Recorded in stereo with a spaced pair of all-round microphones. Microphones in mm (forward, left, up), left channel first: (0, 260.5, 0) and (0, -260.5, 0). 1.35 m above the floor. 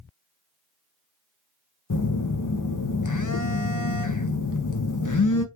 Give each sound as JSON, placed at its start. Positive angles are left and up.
{"t": 1.9, "sound": "a phone buzzing", "side_deg": 40, "distance_m": 0.6}